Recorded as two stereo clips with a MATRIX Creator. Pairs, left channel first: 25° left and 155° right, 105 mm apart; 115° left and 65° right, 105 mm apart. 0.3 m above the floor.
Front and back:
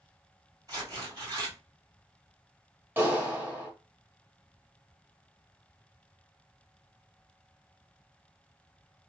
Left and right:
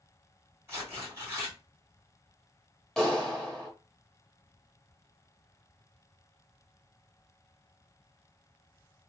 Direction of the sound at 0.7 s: 125° right.